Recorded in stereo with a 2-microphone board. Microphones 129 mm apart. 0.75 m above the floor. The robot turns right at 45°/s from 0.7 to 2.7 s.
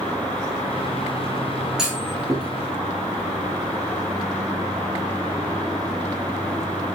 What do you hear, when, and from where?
1.8 s a clunk: 5° right (ahead or behind), 4 m; by 2.5 s 35° right (ahead or behind), 4 m